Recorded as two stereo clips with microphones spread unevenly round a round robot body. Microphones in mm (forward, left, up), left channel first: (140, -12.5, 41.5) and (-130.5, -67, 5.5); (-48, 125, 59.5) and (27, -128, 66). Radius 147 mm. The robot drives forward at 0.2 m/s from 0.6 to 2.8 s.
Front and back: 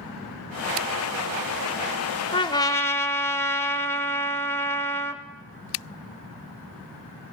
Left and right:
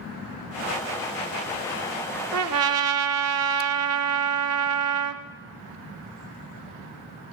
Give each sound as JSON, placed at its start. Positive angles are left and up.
{"t": 2.3, "sound": "a trumpet", "azimuth_deg": -50, "distance_m": 0.5}